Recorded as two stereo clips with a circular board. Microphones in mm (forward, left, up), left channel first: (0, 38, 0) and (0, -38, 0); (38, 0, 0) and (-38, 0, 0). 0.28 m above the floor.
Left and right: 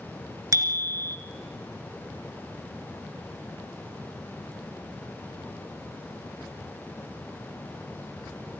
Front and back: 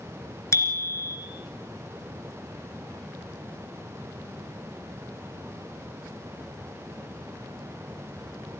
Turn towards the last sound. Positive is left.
turn(degrees=-50)